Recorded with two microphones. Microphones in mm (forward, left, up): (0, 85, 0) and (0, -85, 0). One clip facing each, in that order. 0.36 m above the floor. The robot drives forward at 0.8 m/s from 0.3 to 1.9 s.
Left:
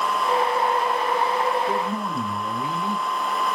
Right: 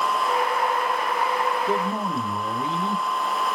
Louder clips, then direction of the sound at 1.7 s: Right 1 dB; 25° right (ahead or behind).